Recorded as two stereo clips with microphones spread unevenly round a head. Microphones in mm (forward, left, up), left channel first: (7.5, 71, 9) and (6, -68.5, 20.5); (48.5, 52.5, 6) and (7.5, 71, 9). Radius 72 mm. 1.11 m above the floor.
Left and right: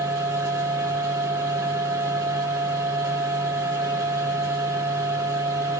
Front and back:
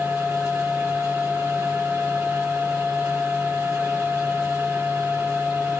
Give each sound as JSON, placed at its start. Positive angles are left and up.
{"t": 0.0, "sound": "a machine running", "azimuth_deg": -160, "distance_m": 4.0}